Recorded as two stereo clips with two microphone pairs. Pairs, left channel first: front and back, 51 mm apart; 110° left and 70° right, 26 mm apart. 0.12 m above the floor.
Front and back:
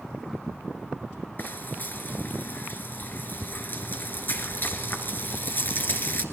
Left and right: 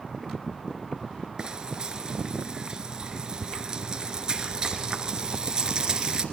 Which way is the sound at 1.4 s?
25° right.